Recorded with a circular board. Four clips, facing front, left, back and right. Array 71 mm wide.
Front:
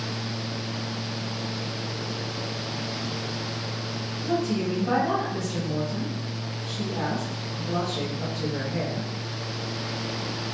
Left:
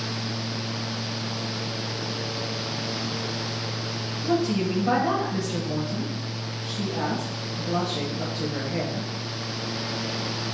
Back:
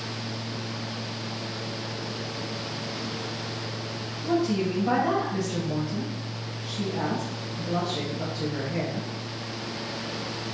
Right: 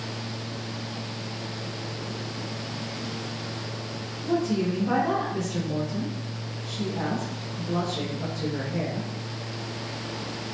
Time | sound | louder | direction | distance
4.2 | a woman speaking | left 1 dB, back 1 dB | 115° left | 1.8 m